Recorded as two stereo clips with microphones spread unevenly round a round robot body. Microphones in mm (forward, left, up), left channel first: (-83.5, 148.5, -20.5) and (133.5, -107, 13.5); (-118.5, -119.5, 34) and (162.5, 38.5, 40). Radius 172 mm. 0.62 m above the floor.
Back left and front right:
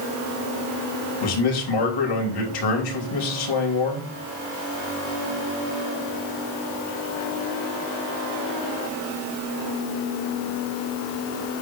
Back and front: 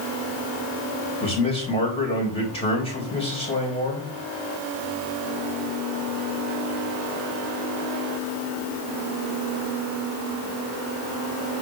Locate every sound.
1.2 s a man speaking: 135° left, 3.5 m